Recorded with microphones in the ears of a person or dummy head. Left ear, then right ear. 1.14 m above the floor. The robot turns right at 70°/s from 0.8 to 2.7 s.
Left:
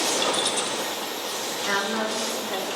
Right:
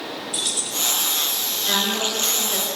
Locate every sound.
0.3 s keys jangling: 10° left (ahead or behind), 0.9 m; by 0.9 s 5° left (ahead or behind), 0.9 m
1.7 s a woman speaking: 95° left, 4 m; by 2.8 s 170° left, 4 m